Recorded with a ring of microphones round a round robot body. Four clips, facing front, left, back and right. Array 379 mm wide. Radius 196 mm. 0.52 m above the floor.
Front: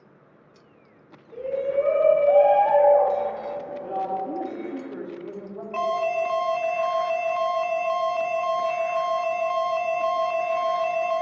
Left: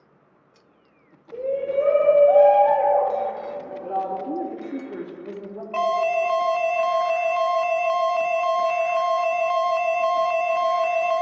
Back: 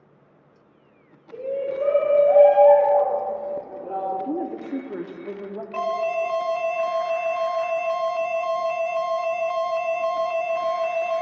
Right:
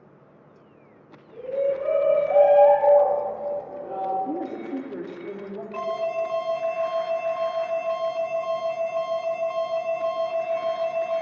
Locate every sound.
1.3 s a shout: 105° left, 2.5 m; by 4.2 s 50° left, 3 m
4.2 s a woman speaking: 175° left, 1.1 m
5.7 s an alarm: 90° left, 0.6 m